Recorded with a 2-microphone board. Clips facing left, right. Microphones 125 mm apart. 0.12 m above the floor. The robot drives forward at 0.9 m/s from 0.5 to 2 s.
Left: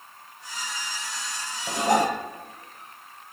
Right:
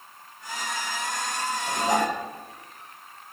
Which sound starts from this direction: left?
Dishes clattering, at 1.7 s.